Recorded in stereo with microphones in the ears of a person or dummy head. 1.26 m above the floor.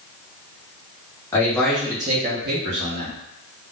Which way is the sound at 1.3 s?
10° left (ahead or behind).